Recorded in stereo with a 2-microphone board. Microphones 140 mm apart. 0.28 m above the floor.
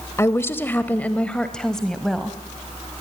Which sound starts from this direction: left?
A woman speaking, at 0.2 s.